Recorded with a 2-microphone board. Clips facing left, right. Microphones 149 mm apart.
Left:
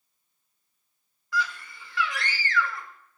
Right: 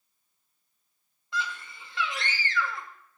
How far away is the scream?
About 0.9 m.